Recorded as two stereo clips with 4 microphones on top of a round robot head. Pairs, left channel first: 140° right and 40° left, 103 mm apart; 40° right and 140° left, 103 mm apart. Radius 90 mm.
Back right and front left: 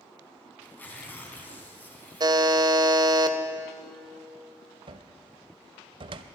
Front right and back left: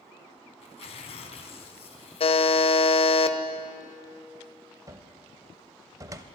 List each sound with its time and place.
0.6 s tearing paper: 65° right, 1.6 m
2.2 s a buzzer: 10° right, 0.8 m
4.9 s a cupboard door: 80° left, 0.6 m